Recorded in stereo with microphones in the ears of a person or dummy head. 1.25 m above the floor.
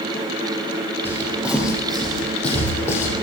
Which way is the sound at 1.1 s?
15° right (ahead or behind).